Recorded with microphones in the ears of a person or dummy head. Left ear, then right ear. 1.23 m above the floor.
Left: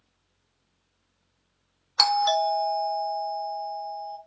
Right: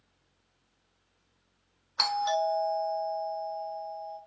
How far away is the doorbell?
About 0.6 m.